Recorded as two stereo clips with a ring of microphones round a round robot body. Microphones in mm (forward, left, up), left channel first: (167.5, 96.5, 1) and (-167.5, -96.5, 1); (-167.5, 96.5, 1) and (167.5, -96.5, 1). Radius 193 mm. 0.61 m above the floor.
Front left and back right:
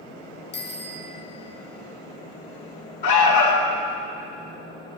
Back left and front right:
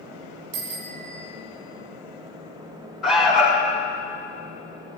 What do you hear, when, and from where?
0.5 s a bicycle bell: 35° right, 3.5 m
3.0 s an alarm: 60° left, 4 m